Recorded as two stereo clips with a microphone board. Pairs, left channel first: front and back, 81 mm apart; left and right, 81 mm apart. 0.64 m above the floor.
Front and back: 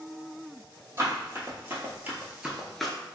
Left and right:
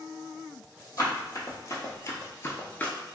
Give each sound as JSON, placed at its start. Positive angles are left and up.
{"t": 1.0, "sound": "running footsteps", "azimuth_deg": 130, "distance_m": 1.4}